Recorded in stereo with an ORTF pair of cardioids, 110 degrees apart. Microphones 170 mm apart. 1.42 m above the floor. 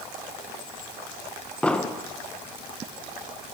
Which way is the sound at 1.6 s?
5° left.